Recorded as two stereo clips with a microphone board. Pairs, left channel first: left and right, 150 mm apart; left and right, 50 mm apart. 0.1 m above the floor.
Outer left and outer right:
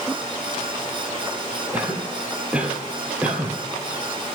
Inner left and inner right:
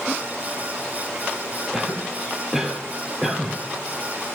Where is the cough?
10° right (ahead or behind), 2.5 m.